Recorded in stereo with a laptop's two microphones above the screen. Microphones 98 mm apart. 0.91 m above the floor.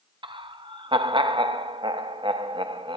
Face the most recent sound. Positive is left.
turn(degrees=-55)  # may be behind; listen again after turning